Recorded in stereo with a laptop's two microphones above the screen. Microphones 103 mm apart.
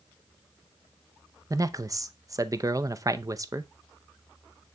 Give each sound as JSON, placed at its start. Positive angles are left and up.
{"t": 1.5, "sound": "a man speaking", "side_deg": -35, "distance_m": 0.6}